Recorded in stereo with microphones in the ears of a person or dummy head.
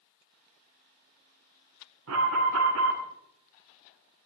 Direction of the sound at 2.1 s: 80° right.